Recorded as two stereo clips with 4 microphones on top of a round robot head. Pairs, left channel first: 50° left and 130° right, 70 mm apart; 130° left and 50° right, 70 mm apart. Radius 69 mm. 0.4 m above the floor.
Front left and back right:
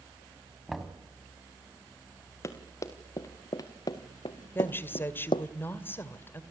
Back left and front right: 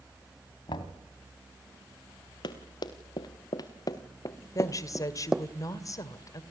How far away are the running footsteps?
About 3 m.